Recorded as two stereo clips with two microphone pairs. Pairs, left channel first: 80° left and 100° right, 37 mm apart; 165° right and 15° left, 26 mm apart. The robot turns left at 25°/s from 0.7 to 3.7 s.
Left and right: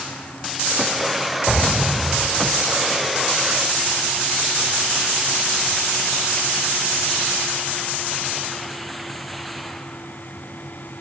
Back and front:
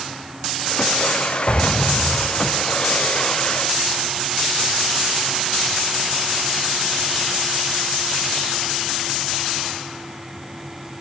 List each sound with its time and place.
1.5 s an explosion: 170° left, 6.5 m; by 2.6 s 140° left, 6.5 m